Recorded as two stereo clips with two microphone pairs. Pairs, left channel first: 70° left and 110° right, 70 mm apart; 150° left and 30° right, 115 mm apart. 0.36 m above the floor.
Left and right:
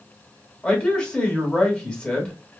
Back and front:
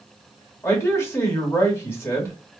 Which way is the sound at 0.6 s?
120° left.